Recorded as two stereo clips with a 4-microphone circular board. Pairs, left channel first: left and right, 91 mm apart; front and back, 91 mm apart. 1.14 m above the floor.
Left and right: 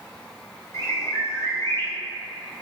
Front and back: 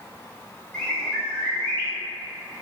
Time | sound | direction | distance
0.7 | a bird | 70° left | 0.7 m